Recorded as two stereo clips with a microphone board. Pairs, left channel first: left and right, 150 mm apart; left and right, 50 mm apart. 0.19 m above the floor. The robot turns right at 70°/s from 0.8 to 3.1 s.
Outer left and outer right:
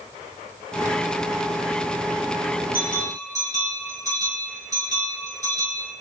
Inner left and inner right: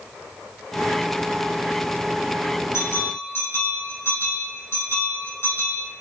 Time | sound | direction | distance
2.7 | a bell | 75° left (ahead or behind) | 5 m